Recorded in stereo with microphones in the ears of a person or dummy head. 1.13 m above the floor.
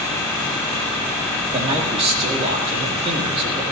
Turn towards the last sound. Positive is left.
turn(degrees=-35)  # may be behind; listen again after turning